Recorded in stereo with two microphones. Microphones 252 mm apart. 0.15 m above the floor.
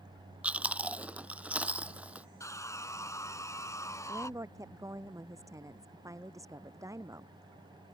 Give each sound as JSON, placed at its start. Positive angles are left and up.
{"t": 0.4, "sound": "chewing", "side_deg": -5}
{"t": 2.4, "sound": "sawing", "side_deg": 10}
{"t": 4.1, "sound": "a woman speaking", "side_deg": -10}